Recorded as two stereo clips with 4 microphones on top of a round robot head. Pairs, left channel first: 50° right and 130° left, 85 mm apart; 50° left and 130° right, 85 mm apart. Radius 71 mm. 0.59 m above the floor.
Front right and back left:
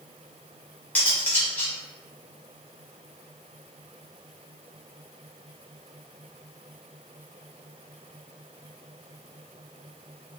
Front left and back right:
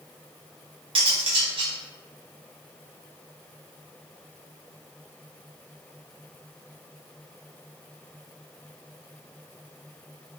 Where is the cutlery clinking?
120° right, 1.3 m.